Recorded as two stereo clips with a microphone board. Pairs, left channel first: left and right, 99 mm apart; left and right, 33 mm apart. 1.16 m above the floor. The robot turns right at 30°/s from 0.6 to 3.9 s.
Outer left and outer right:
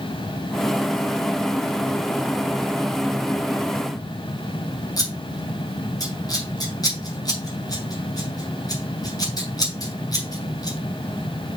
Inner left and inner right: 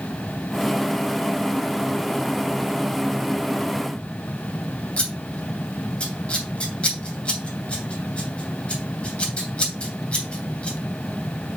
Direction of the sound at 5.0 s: 40° left (ahead or behind).